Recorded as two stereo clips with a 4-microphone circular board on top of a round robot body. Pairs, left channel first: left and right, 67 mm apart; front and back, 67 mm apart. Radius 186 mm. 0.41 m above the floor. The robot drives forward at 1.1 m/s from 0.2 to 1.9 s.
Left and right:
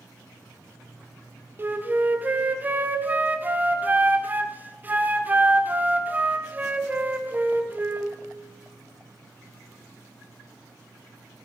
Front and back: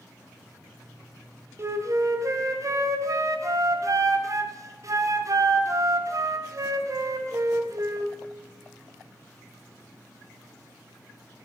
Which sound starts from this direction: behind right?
A flute, at 1.6 s.